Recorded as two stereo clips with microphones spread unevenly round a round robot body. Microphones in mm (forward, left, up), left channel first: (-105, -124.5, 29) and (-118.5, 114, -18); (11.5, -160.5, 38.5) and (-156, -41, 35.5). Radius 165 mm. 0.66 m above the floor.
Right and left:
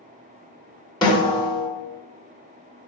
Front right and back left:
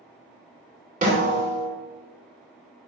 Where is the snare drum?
165° right, 1.9 m.